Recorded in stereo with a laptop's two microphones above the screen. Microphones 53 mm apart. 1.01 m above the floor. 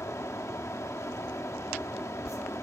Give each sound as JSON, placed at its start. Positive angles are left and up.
{"t": 0.0, "sound": "a fan", "side_deg": 70, "distance_m": 0.9}